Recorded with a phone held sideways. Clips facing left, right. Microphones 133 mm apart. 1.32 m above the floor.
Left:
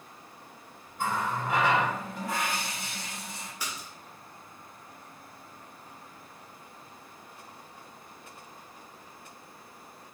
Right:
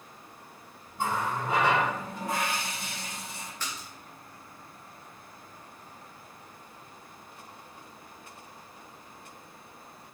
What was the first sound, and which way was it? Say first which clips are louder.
A running tap: even; 25° right (ahead or behind).